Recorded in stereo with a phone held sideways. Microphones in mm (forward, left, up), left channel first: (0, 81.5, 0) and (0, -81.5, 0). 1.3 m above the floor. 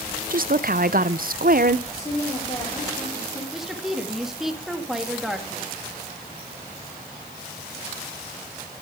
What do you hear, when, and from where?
0.3 s a woman speaking: 60° right (ahead or behind), 0.7 m
1.9 s a woman speaking: 30° left (ahead or behind), 4 m
3.5 s a woman speaking: centre (ahead or behind), 2 m